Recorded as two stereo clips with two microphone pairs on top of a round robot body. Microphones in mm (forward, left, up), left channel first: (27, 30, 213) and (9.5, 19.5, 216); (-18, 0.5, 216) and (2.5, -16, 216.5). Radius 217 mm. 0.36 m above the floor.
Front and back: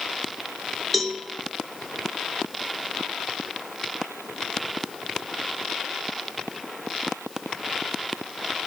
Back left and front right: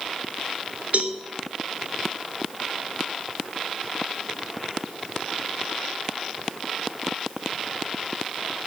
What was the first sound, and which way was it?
A cowbell, 65° right.